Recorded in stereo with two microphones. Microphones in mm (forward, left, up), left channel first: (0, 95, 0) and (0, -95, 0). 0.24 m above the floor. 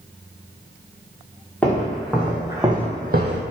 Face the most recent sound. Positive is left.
turn(degrees=-75)  # may be behind; listen again after turning